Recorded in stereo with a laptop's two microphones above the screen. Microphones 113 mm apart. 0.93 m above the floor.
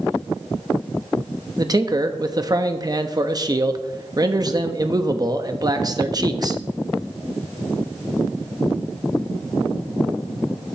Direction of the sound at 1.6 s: 35° right (ahead or behind).